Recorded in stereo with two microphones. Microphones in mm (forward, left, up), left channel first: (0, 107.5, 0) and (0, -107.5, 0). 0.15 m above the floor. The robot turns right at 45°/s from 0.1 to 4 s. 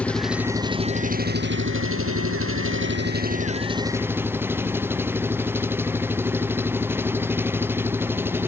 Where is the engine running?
175° left; by 8.5 s 10° right.